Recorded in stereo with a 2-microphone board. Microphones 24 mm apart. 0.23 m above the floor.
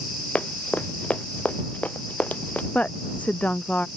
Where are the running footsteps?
85° left; by 2.6 s 80° left.